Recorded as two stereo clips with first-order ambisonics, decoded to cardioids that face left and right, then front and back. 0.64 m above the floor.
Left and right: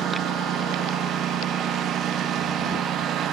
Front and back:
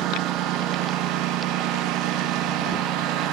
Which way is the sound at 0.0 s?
145° right.